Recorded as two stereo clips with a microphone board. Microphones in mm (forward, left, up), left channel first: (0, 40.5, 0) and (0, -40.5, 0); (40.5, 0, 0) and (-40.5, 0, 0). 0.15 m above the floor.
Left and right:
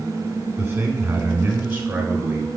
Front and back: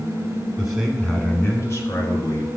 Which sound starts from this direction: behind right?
A man speaking, at 0.6 s.